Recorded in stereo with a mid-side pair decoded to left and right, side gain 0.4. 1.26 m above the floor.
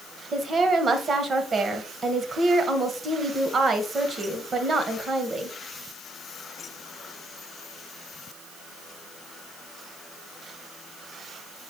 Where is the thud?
No thud in this recording.